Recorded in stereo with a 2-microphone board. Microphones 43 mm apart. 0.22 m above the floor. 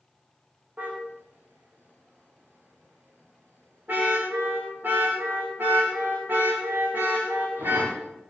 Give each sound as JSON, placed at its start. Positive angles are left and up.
{"t": 0.8, "sound": "a car horn", "side_deg": -40, "distance_m": 7.5}